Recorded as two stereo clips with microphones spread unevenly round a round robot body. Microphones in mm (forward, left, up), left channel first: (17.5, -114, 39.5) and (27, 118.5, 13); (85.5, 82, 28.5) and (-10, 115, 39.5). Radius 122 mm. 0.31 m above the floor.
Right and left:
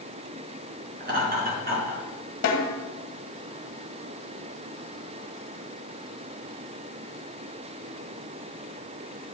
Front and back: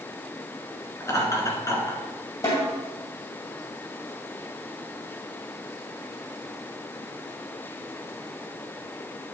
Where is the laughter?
35° left, 3.5 m.